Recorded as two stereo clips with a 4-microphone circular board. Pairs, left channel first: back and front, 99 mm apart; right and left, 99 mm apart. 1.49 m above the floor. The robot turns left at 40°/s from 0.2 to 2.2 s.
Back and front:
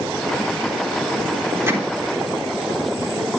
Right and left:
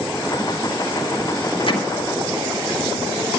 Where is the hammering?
65° right, 3.5 m; by 1.8 s 70° right, 3.5 m.